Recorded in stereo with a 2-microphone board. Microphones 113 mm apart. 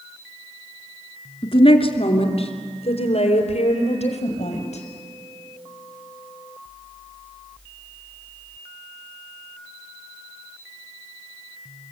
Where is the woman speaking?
55° left (ahead or behind), 2.5 m; by 4.8 s 75° left (ahead or behind), 5.5 m.